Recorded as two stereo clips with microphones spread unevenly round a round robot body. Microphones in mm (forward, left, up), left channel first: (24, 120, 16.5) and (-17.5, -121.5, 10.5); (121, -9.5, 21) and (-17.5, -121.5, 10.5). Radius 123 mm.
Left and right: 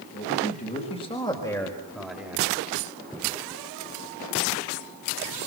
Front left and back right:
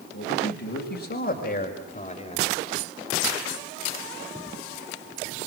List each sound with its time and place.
0.1 s a man speaking: 25° left, 5 m; by 2.5 s 20° right, 4 m